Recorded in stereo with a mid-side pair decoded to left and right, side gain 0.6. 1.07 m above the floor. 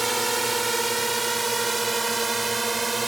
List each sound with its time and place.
0.0 s a drone: 15° right; by 3.1 s 20° right